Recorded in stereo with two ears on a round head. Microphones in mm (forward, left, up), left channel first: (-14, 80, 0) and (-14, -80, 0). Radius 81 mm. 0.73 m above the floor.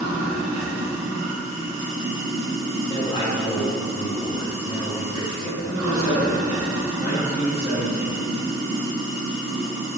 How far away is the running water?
About 0.7 m.